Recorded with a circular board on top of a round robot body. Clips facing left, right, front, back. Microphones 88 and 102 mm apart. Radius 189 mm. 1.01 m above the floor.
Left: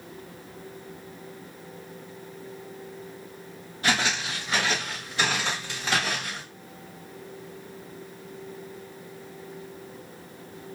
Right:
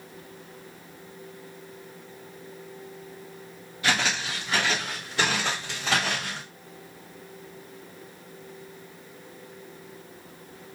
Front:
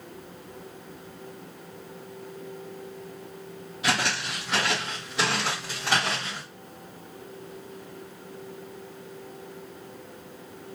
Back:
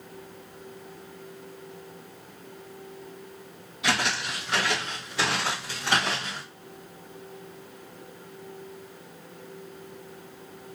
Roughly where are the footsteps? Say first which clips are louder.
Even, even; ahead left.